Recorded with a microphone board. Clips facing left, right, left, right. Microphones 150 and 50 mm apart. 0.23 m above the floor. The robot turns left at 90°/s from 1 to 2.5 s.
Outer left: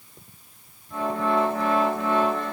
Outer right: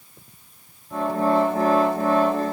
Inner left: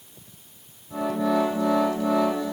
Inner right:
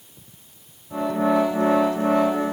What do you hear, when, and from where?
Only background noise.